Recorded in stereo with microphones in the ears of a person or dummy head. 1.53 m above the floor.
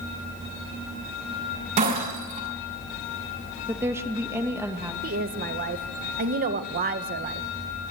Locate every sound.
1.8 s breaking glass: 30° right (ahead or behind), 8 m
3.7 s a woman speaking: 15° right (ahead or behind), 2 m
5.0 s a woman speaking: 40° right (ahead or behind), 1.5 m